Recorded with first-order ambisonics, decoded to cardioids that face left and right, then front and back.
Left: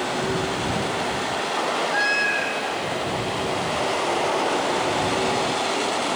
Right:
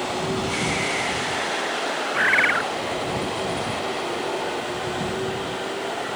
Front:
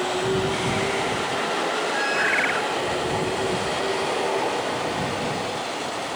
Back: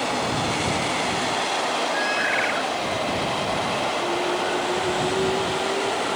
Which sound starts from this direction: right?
A bird, at 2.1 s.